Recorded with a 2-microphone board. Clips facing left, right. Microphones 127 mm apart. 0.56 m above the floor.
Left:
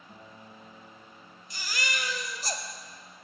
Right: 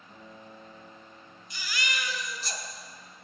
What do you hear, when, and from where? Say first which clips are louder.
0.1 s a guitar: right 2 dB; 20° left (ahead or behind), 2.0 m
1.5 s a baby crying: even; 45° left (ahead or behind), 1.4 m